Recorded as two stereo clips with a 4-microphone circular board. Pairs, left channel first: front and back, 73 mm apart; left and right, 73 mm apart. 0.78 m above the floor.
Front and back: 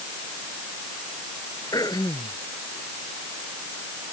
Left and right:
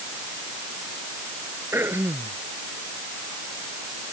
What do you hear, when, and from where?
1.7 s throat clearing: 35° right